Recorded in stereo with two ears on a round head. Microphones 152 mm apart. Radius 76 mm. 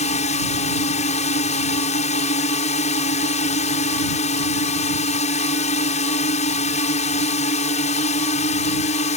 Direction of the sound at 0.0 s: 40° left (ahead or behind).